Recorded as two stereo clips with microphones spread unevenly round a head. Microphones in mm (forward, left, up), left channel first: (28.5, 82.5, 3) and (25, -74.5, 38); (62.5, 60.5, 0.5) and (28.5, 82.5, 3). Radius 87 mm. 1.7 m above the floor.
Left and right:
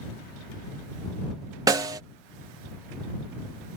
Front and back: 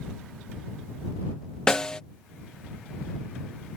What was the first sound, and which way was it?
A snare drum, 105° right.